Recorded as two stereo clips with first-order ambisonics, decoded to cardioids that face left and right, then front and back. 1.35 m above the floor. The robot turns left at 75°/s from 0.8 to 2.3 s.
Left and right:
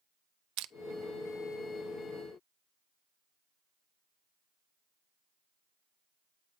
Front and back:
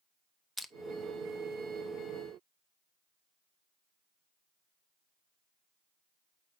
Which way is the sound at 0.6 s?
85° right.